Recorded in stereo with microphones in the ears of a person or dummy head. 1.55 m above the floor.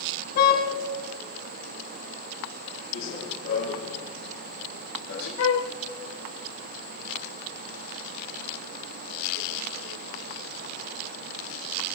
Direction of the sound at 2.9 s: 45° left (ahead or behind).